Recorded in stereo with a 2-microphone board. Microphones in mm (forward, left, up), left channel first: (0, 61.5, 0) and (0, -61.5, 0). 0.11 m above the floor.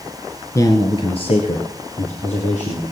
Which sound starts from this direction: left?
A man speaking, at 0.6 s.